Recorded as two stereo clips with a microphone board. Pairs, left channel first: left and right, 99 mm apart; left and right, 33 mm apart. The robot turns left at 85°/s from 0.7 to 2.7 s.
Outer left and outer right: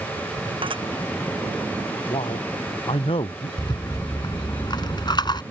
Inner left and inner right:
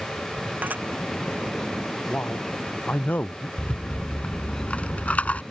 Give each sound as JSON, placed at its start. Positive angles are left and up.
{"t": 0.6, "sound": "dishes clattering", "side_deg": -60}
{"t": 2.1, "sound": "a man speaking", "azimuth_deg": 125}
{"t": 3.6, "sound": "a rattle", "side_deg": 50}